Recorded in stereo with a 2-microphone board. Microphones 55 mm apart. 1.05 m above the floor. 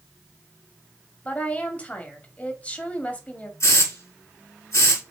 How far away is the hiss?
About 3.5 m.